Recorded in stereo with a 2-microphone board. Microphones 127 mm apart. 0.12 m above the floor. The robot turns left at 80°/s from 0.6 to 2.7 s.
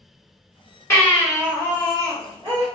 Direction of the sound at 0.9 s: 35° left.